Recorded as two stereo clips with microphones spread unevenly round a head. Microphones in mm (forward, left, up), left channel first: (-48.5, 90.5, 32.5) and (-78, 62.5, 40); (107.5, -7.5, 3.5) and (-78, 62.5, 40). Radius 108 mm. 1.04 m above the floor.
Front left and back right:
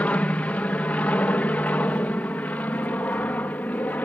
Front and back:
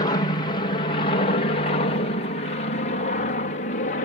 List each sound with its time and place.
0.0 s an aircraft: 20° left; by 4.0 s 5° left